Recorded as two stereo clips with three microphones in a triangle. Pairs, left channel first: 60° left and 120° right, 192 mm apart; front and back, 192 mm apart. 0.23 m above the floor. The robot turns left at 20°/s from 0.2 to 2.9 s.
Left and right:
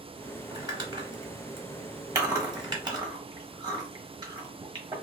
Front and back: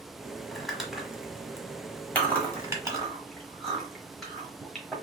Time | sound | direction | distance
0.5 | crumpling | 85° right | 1.1 m
2.1 | chewing | 70° right | 1.2 m